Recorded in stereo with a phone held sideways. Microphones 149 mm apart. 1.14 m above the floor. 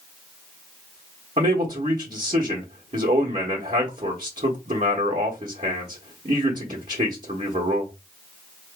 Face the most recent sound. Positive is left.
turn(degrees=-50)  # may be behind; listen again after turning